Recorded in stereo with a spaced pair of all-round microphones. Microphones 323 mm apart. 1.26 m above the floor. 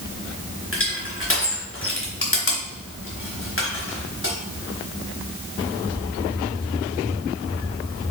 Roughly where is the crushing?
Left.